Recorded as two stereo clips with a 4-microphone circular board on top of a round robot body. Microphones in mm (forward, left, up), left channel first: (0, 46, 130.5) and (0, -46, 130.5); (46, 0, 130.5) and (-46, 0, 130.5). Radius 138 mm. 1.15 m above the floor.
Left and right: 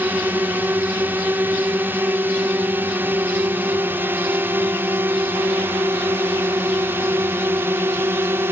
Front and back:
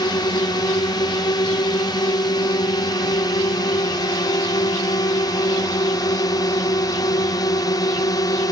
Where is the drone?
25° right; by 8.5 s 30° right.